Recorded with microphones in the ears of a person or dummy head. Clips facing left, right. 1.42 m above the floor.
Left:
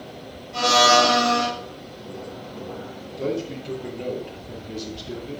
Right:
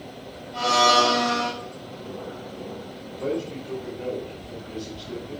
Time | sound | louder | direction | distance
0.5 | a blender | left 3 dB | 75° left (ahead or behind) | 5.5 m
3.2 | a man speaking | left 1 dB | 55° left (ahead or behind) | 3 m